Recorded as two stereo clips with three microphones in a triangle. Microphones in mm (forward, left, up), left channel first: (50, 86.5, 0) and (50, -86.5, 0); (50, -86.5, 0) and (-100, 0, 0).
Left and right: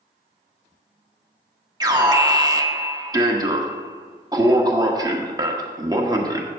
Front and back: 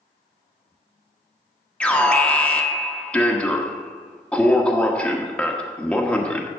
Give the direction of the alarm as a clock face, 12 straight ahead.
3 o'clock.